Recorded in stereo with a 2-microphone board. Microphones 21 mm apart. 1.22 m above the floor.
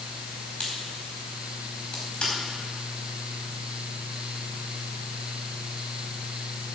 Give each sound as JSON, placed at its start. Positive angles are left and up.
{"t": 0.6, "sound": "a crack", "side_deg": 50, "distance_m": 4.0}